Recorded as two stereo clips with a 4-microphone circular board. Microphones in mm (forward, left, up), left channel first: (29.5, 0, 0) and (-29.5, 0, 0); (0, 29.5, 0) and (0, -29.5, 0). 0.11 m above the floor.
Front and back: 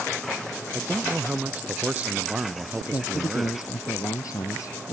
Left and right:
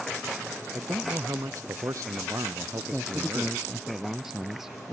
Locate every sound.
0.7 s a man speaking: 115° right
2.9 s a man speaking: 5° right